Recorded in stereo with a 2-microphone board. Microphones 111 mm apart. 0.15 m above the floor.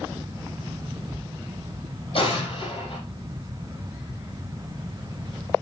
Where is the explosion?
55° left (ahead or behind), 6 m.